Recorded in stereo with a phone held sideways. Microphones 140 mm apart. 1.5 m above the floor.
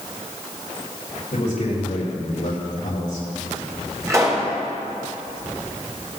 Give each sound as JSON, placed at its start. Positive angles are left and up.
{"t": 1.3, "sound": "a man speaking", "side_deg": 80, "distance_m": 4.0}
{"t": 4.1, "sound": "a pop", "side_deg": -25, "distance_m": 3.0}